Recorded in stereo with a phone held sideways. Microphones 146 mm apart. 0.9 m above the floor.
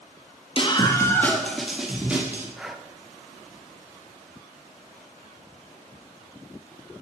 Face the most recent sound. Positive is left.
turn(degrees=0)  # may be behind; listen again after turning